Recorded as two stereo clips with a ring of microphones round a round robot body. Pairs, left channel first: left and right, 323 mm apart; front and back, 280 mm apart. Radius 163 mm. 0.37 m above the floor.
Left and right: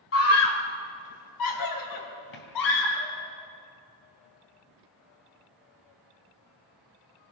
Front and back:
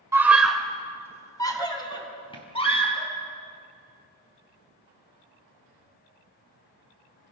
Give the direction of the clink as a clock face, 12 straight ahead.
I don't hear a clink.